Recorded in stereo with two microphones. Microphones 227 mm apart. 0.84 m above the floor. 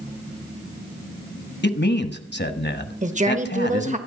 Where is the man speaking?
50° left (ahead or behind), 1.1 m.